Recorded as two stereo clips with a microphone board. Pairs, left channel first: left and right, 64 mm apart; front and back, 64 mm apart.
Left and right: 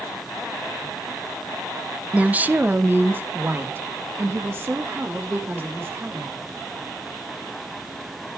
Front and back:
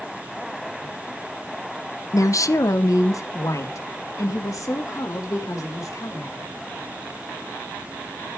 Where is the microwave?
No microwave in this recording.